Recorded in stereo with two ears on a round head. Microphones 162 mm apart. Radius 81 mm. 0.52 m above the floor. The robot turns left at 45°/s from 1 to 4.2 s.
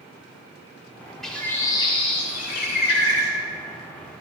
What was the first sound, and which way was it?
A bird, 175° left.